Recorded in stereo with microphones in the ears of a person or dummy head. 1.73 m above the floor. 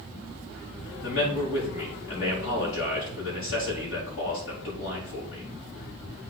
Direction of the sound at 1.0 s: 70° left (ahead or behind).